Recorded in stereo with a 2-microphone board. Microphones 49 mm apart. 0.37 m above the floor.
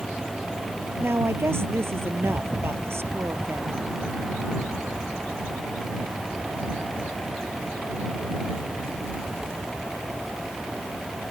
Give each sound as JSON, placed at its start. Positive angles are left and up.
{"t": 1.0, "sound": "a woman speaking", "side_deg": -60}